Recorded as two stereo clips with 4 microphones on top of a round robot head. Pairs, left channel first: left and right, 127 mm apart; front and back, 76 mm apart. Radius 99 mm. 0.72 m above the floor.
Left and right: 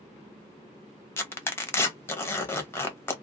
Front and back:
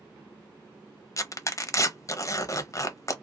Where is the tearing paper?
25° left, 0.7 m.